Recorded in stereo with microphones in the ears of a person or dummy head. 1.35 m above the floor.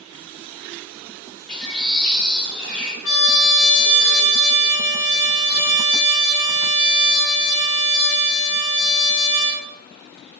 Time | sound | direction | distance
1.5 | a bird | 5° left (ahead or behind) | 0.9 m
3.0 | a trumpet | 75° left (ahead or behind) | 1.0 m